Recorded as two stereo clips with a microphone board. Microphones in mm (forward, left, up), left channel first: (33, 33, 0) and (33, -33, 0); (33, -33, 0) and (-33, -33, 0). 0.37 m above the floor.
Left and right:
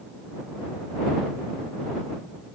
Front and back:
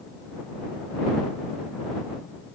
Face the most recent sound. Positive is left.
No sound to turn to.